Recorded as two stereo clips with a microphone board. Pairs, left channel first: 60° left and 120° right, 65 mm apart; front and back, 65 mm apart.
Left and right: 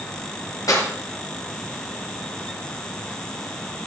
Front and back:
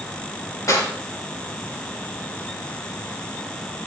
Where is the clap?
35° left, 5 m.